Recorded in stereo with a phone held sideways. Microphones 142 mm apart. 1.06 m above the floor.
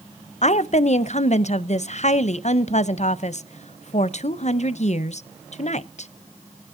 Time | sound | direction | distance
0.4 | a woman speaking | 60° left (ahead or behind) | 0.5 m